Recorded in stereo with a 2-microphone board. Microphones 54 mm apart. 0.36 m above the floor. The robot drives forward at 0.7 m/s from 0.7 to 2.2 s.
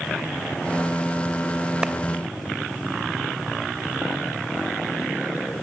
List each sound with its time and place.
1.8 s a clap: 15° right (ahead or behind), 1.2 m